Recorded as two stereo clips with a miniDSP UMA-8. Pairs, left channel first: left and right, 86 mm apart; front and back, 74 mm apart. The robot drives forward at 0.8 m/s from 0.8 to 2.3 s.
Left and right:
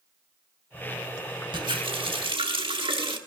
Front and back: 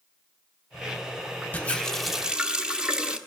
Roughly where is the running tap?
Ahead right.